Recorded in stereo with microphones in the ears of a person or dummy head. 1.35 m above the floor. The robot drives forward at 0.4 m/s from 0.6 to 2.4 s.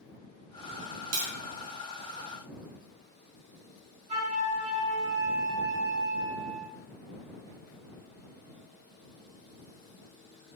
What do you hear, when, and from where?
1.1 s tapping: 65° right (ahead or behind), 0.7 m; by 1.3 s 75° right (ahead or behind), 0.7 m
4.1 s a flute: 45° right (ahead or behind), 1.7 m